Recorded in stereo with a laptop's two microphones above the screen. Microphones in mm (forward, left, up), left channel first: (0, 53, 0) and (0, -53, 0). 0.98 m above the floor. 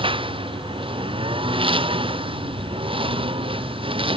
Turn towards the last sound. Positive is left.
turn(degrees=-60)  # may be behind; listen again after turning